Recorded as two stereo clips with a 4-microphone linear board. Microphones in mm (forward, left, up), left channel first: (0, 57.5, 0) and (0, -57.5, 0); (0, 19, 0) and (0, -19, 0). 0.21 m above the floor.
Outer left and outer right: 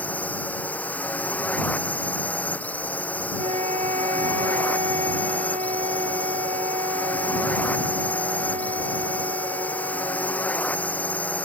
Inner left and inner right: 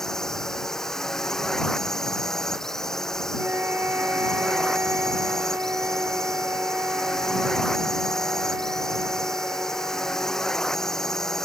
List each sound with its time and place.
0.0 s a drone: 15° left (ahead or behind)
3.4 s a flute: 70° right (ahead or behind)